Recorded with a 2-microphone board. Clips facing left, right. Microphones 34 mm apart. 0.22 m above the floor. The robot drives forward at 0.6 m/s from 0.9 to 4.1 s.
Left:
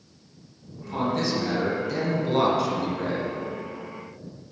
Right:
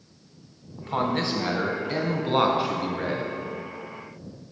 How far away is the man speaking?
About 1.3 m.